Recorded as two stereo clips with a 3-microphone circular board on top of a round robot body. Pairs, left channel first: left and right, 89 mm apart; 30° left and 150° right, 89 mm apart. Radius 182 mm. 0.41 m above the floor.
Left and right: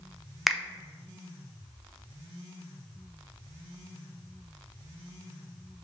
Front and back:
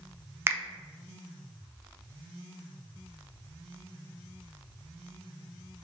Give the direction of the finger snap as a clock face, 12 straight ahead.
6 o'clock.